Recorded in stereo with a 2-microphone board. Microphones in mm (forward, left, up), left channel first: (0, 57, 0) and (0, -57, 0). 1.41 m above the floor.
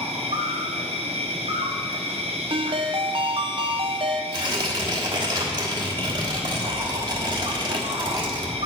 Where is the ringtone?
45° right (ahead or behind), 0.5 m.